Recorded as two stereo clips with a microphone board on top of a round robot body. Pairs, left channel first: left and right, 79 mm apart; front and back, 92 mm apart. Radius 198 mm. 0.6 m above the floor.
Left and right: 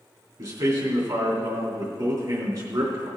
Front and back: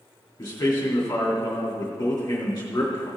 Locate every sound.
0.4 s a man speaking: 60° right, 2.5 m